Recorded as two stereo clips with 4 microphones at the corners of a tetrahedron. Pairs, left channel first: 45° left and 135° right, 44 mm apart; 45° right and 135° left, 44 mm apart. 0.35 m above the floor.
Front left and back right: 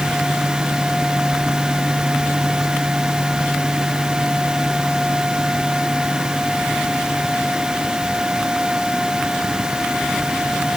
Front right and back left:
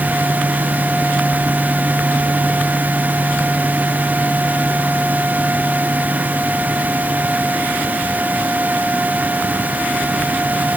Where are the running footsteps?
No running footsteps in this recording.